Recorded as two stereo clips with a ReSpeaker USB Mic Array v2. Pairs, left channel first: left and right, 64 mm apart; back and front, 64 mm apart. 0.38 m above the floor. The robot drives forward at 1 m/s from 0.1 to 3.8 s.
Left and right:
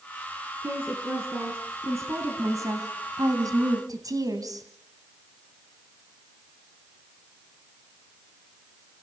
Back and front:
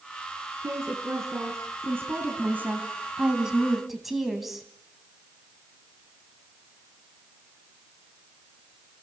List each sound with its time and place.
0.6 s a woman speaking: 35° right, 4 m; by 4.7 s 85° right, 2.5 m